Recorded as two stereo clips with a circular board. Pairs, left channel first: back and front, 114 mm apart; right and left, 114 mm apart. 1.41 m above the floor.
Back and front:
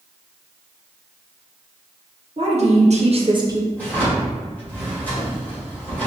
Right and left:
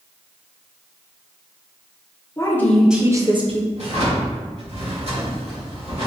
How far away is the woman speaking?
About 1.0 m.